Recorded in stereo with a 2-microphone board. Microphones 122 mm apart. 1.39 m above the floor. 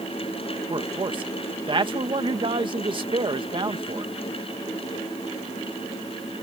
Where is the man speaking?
45° right (ahead or behind).